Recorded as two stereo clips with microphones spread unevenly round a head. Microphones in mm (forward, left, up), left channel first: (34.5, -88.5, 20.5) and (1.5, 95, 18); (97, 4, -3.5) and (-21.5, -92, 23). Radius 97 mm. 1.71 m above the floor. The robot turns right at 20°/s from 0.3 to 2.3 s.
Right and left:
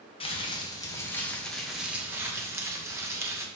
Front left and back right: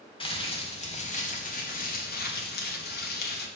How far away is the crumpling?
About 1.8 m.